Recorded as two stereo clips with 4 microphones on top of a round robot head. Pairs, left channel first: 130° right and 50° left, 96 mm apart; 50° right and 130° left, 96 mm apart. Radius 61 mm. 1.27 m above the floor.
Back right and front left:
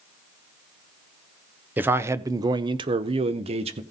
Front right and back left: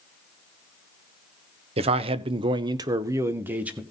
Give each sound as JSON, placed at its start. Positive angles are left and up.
{"t": 1.8, "sound": "a man speaking", "azimuth_deg": 120, "distance_m": 0.9}